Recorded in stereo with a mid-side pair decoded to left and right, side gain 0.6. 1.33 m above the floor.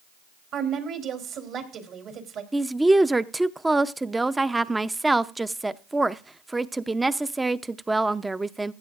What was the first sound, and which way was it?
A woman speaking, 55° right.